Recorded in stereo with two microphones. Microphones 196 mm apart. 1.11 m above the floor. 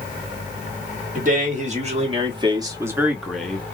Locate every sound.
1.1 s a man speaking: 45° right (ahead or behind), 1.6 m; by 3.6 s 10° left (ahead or behind), 1.0 m